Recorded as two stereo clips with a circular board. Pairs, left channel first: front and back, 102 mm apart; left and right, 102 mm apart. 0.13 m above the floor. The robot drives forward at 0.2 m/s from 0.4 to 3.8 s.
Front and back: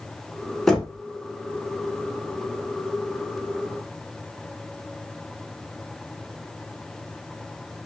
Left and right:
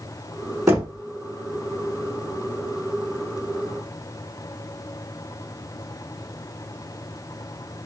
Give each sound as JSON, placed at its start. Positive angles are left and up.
{"t": 0.7, "sound": "knocking", "azimuth_deg": -75, "distance_m": 0.8}